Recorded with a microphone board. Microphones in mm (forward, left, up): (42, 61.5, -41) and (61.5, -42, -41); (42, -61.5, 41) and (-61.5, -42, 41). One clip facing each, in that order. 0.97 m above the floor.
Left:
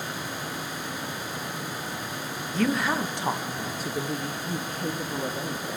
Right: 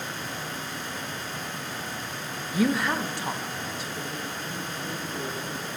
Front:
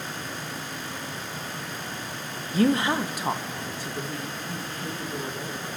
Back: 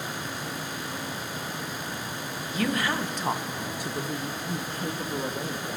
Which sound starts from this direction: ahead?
A woman speaking, at 2.5 s.